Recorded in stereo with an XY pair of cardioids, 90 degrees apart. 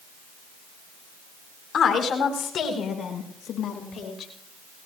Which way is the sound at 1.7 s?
60° left.